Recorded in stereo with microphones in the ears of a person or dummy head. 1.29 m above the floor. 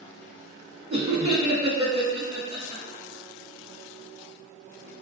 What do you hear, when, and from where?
0.9 s laughter: 30° right (ahead or behind), 0.7 m